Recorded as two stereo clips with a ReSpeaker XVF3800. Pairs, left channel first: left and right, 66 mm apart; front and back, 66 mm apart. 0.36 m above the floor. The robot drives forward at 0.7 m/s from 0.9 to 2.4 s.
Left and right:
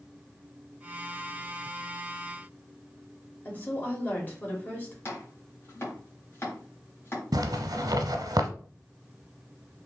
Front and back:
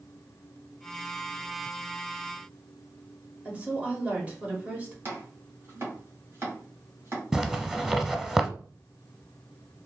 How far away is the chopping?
About 1.8 m.